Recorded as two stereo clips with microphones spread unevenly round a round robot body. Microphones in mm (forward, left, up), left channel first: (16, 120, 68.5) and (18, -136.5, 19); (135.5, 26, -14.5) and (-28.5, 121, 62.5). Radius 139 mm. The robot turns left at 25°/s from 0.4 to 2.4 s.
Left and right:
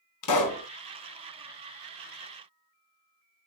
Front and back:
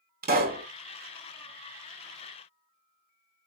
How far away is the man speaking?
I don't hear a man speaking.